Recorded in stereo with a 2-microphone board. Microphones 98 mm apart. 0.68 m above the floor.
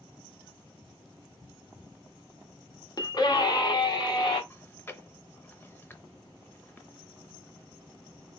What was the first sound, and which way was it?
A scream, 40° left (ahead or behind).